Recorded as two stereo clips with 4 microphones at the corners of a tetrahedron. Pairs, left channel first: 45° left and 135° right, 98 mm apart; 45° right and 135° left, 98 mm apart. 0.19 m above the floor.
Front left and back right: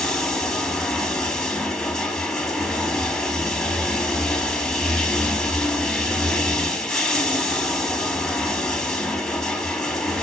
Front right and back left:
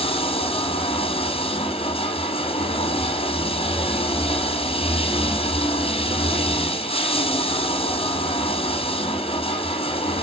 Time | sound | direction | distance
0.0 | running water | 40° right | 4 m